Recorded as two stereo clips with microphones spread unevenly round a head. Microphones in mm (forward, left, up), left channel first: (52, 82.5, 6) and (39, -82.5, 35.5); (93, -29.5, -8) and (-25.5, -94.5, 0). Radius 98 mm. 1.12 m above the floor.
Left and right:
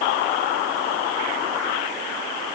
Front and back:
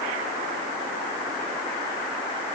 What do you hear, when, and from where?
Only background noise.